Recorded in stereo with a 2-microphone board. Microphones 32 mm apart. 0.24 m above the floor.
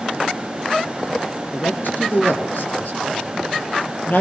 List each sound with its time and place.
1.5 s a man speaking: 65° left (ahead or behind), 3.5 m; by 4.2 s 60° left (ahead or behind), 4.5 m